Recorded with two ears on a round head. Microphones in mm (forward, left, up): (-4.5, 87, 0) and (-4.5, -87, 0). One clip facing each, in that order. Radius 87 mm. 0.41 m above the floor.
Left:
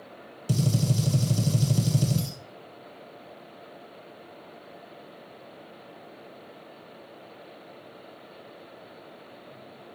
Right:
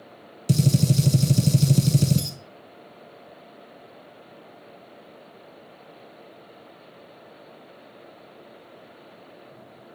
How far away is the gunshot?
About 0.9 m.